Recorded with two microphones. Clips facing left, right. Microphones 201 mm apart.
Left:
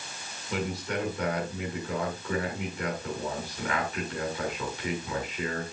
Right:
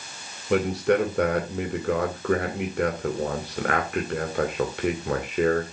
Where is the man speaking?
65° right (ahead or behind), 2.5 m.